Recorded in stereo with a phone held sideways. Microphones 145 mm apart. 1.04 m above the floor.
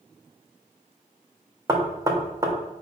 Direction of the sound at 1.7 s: 25° right (ahead or behind).